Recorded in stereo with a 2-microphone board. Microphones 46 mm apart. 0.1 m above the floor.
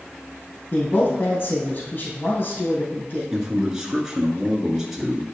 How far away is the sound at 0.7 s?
About 2.5 m.